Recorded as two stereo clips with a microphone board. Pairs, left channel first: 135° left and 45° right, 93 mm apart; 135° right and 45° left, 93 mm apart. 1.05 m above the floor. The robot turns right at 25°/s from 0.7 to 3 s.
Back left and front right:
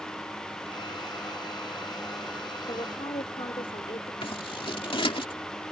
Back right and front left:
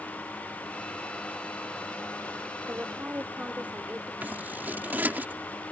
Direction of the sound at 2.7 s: 110° left.